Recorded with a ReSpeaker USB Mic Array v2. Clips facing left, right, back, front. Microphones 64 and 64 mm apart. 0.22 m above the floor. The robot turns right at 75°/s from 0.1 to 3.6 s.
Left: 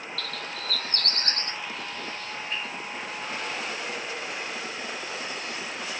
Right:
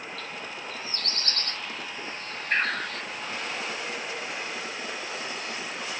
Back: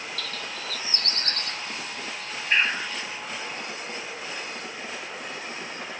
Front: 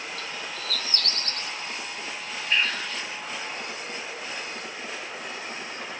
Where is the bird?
60° left; by 3.0 s 85° right.